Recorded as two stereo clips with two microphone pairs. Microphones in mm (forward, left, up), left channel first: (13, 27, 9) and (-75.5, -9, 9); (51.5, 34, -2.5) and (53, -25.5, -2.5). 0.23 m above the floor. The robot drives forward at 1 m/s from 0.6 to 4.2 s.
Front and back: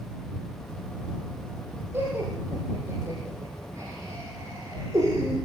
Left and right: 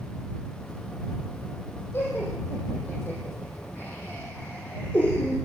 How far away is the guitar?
I don't hear a guitar.